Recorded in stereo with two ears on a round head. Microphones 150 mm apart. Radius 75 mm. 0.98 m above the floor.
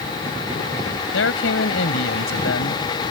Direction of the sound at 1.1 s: 85° left.